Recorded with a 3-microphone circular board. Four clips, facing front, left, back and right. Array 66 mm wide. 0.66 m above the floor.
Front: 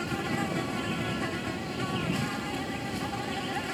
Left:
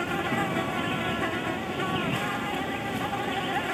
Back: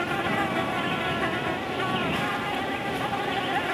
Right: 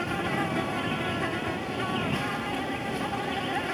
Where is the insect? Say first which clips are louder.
Left 1 dB, back 5 dB; 165° left.